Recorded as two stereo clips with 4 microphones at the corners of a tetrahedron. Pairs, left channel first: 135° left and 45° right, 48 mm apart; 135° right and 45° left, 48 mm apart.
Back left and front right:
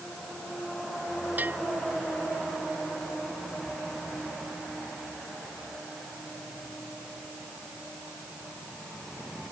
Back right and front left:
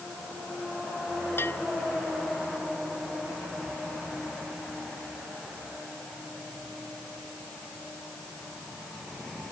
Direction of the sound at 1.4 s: 95° right.